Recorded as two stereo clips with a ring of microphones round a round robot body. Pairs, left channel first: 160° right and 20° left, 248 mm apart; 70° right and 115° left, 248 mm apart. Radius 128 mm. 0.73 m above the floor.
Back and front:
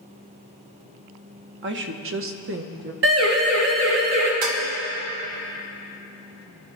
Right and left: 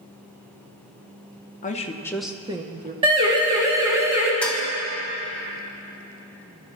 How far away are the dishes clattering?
About 1.8 m.